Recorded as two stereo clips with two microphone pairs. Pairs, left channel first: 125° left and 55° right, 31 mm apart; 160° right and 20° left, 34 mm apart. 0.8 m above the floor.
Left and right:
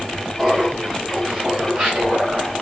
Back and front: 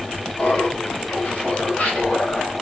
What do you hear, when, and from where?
0.4 s laughter: 125° right, 3.5 m; by 2.5 s 110° right, 4.5 m